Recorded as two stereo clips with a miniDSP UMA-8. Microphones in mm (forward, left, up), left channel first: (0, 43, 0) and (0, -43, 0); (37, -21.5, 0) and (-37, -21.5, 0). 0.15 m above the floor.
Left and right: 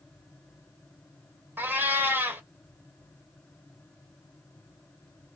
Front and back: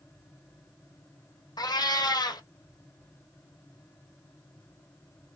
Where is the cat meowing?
25° right, 0.5 m.